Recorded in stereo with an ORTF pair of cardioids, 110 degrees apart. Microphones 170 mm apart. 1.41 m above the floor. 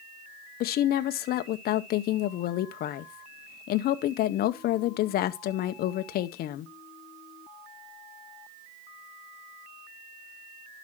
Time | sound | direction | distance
0.6 | a woman speaking | 65° left | 0.7 m